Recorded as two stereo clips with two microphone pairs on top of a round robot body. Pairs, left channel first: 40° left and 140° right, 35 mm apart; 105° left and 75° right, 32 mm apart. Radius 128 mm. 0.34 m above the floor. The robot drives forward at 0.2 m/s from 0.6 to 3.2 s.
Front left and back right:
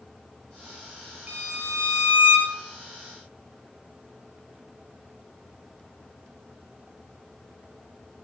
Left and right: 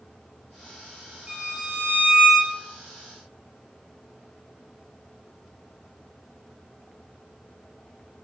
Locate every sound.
1.3 s a violin: 125° right, 1.2 m; by 2.5 s 135° right, 1.3 m